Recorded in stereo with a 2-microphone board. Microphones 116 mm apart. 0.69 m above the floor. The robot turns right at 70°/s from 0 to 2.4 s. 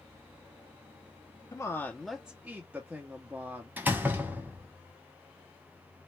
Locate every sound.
1.5 s a woman speaking: 135° left, 0.6 m; by 3.7 s 160° right, 0.6 m
3.8 s a door slam: 15° right (ahead or behind), 1.0 m